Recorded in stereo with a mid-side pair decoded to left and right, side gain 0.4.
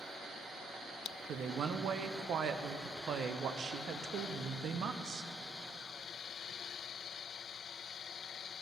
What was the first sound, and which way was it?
A woman speaking, 70° right.